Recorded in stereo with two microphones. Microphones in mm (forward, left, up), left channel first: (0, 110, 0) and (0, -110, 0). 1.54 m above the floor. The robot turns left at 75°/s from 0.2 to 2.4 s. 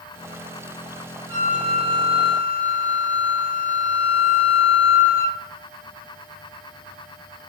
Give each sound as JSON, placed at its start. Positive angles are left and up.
{"t": 1.3, "sound": "a flute", "azimuth_deg": -105, "distance_m": 2.5}